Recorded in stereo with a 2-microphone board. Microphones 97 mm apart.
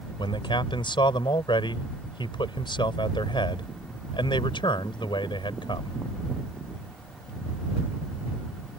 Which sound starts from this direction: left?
A man speaking, at 0.2 s.